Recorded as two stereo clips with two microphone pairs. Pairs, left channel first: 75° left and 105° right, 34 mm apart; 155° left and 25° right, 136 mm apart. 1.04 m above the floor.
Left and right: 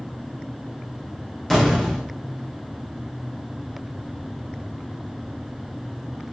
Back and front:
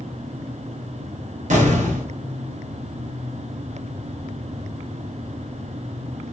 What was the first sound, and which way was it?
An explosion, 5° right.